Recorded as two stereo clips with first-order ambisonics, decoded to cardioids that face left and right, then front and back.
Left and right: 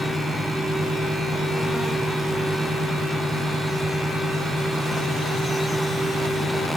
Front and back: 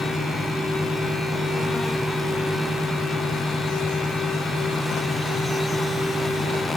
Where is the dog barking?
I don't hear a dog barking.